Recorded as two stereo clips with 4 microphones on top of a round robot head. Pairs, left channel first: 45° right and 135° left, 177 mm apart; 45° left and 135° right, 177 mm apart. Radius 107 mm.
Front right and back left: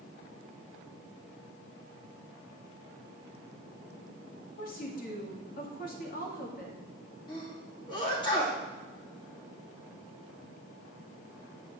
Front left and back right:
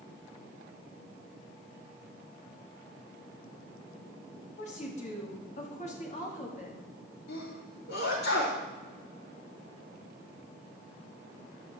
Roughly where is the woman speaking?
Ahead.